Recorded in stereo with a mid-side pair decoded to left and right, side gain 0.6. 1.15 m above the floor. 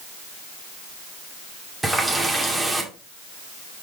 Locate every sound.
1.8 s a running tap: 10° right, 2 m